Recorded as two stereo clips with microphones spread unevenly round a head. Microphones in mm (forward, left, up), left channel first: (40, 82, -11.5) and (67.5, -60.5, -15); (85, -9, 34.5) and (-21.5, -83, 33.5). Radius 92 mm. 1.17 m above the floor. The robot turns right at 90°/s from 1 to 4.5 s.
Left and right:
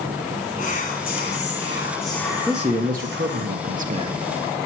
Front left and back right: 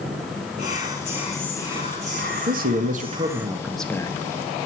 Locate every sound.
0.6 s whispering: 75° left, 4 m; by 3.5 s 65° right, 4 m
2.5 s a man speaking: 175° right, 1.7 m; by 4.2 s 20° right, 1.7 m